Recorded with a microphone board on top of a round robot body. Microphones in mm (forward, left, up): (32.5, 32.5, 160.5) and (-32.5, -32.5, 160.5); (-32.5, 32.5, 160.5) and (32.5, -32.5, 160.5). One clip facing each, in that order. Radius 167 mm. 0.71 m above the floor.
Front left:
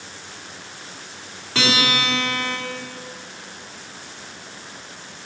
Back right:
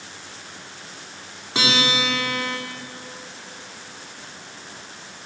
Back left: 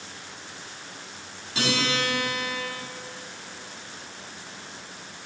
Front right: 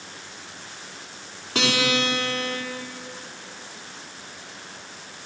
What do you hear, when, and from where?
1.6 s a guitar: 65° right, 2.5 m